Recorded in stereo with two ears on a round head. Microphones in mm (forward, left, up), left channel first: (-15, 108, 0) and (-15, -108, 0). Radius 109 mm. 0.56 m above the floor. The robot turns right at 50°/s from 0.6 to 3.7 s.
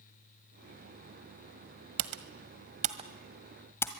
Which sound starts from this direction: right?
Typing on a keyboard, at 2.0 s.